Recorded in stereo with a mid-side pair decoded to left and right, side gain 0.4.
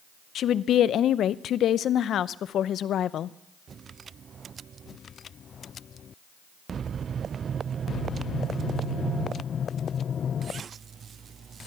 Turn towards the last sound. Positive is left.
turn(degrees=70)